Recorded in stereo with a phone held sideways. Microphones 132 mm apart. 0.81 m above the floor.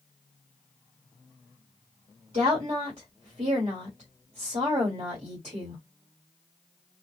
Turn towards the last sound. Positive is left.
turn(degrees=-55)  # may be behind; listen again after turning